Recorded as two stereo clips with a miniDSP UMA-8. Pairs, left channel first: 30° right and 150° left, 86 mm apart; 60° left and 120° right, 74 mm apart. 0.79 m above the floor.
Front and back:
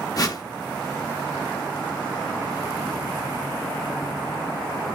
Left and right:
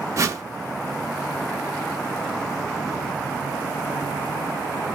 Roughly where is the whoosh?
Right.